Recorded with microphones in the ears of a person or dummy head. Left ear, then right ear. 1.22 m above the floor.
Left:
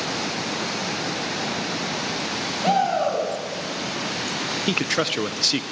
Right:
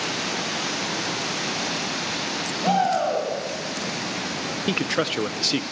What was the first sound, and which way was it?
A shout, 5° left (ahead or behind).